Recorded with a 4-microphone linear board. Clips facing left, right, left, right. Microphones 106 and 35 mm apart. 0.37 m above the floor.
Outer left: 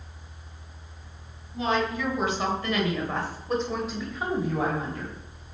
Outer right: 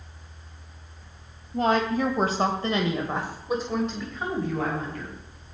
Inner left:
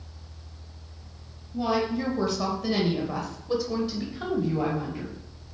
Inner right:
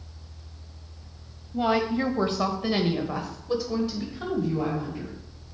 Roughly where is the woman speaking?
Right.